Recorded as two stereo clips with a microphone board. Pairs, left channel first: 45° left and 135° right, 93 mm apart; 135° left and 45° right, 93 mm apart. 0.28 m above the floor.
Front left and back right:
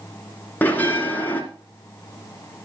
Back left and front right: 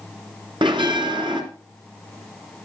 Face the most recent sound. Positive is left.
turn(degrees=-25)